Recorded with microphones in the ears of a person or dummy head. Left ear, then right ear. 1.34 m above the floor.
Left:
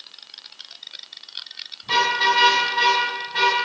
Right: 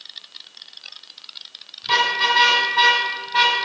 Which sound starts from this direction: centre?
A car horn, at 1.8 s.